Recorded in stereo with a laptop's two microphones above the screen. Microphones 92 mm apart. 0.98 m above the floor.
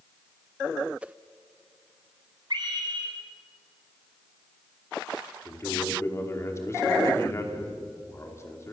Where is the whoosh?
15° right (ahead or behind), 1.0 m.